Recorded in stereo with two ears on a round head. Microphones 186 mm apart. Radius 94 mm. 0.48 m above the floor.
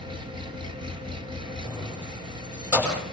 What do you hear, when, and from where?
0.0 s an engine running: 25° right (ahead or behind), 4.5 m
1.6 s keys jangling: 5° right (ahead or behind), 9.5 m